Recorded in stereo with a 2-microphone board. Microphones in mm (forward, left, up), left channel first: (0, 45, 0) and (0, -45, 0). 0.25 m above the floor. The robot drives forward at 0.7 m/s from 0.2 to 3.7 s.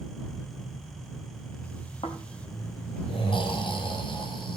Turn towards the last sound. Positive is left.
turn(degrees=65)  # may be behind; listen again after turning